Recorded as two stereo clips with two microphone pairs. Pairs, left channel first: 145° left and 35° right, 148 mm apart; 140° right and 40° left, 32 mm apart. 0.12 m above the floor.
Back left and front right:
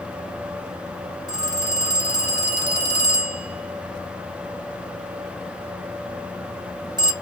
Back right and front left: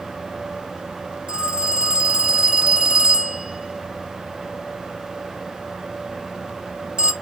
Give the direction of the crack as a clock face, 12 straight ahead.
I don't hear a crack.